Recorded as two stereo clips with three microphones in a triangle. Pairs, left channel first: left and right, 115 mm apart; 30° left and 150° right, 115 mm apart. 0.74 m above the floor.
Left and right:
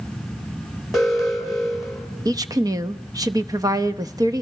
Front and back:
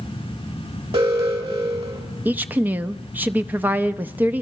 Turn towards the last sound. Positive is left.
turn(degrees=-90)